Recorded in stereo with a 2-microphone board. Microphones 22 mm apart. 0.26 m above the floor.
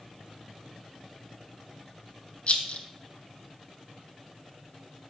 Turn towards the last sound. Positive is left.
turn(degrees=55)  # may be behind; listen again after turning